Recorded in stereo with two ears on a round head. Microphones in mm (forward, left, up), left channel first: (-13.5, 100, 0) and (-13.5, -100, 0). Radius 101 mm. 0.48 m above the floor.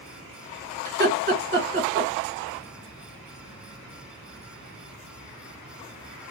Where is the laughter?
45° right (ahead or behind), 2 m.